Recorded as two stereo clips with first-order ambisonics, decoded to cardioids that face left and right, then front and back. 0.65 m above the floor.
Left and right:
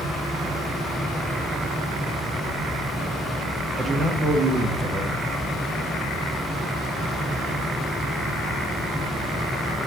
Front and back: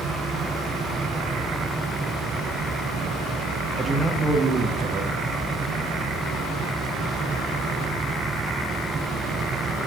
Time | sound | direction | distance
3.8 | a man speaking | 125° right | 0.8 m